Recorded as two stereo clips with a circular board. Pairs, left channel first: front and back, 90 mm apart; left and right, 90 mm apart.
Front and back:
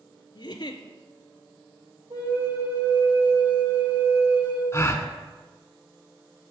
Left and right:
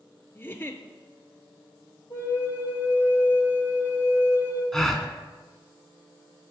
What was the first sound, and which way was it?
A giggle, 25° left.